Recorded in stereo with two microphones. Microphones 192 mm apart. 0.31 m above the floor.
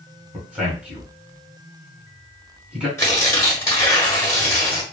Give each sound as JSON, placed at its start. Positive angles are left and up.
{"t": 0.3, "sound": "a man speaking", "side_deg": -5, "distance_m": 1.8}
{"t": 3.0, "sound": "tearing paper", "side_deg": 15, "distance_m": 1.6}